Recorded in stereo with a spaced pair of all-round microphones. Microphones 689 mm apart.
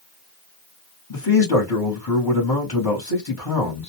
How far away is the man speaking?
About 1.3 m.